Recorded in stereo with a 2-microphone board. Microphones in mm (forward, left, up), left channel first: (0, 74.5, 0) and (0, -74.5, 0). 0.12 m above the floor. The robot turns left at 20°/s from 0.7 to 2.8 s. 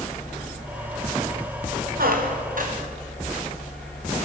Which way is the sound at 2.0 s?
75° right (ahead or behind).